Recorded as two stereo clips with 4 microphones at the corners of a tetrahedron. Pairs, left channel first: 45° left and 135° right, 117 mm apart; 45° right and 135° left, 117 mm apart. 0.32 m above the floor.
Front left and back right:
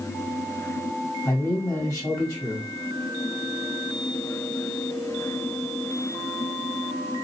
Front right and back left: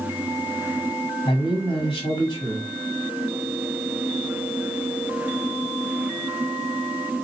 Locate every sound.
1.2 s a man speaking: 25° right, 1.8 m